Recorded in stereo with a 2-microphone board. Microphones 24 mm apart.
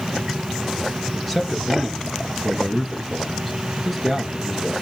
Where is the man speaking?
5° left (ahead or behind), 2 m.